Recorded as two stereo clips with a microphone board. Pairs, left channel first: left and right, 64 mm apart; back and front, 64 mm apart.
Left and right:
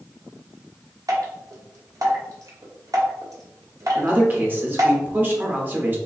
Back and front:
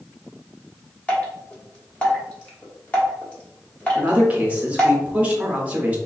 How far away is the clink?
No clink in this recording.